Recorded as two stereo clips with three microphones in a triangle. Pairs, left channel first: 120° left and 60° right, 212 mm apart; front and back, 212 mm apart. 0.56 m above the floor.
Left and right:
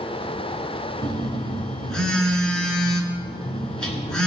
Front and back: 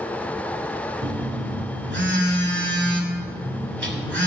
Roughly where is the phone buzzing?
Behind right.